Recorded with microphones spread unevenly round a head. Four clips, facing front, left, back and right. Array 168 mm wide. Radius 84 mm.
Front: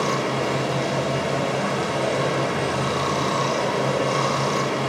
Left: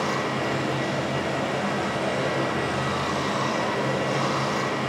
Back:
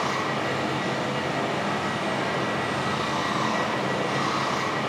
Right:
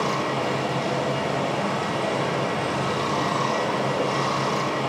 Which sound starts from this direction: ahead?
Running water, at 0.0 s.